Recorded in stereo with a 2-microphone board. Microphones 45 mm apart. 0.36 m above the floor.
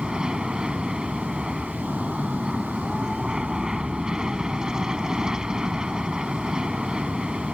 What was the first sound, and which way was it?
An aircraft, 15° right (ahead or behind).